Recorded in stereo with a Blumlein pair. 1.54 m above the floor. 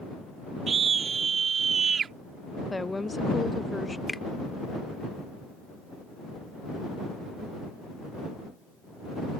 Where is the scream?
20° right.